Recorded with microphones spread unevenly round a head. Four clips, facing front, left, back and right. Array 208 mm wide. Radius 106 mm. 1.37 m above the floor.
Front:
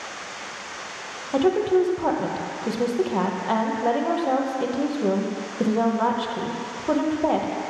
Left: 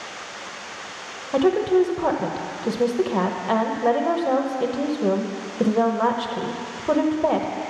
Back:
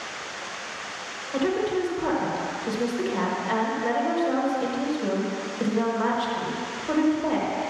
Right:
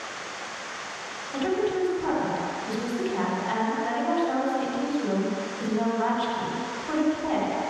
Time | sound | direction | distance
1.3 | a woman speaking | 60° left | 1.0 m